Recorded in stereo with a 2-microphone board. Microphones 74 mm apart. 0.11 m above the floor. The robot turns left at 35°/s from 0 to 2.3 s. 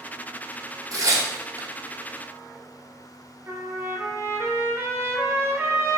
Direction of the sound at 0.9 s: 50° right (ahead or behind).